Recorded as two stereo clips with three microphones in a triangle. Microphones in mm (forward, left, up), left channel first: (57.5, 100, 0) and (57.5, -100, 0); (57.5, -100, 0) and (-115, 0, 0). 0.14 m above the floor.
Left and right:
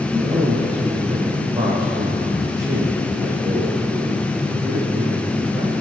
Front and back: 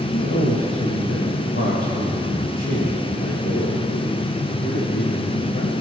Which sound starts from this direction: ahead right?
A man speaking, at 0.1 s.